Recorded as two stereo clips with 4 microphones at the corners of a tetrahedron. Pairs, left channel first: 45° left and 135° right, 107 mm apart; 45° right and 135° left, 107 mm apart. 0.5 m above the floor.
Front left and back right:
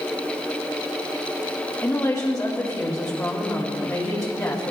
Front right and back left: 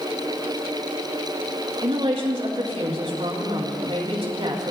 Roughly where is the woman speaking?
Left.